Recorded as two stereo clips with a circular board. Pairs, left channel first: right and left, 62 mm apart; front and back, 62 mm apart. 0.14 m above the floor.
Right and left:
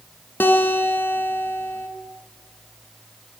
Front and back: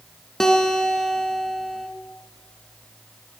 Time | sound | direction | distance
0.4 | a guitar | 75° right | 1.6 m